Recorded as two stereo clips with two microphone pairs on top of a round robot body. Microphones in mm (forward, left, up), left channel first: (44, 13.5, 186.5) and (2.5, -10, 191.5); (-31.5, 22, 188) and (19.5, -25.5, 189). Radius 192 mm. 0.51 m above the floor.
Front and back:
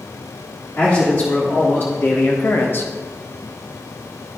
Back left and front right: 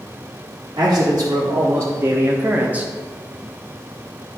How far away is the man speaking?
About 1.9 m.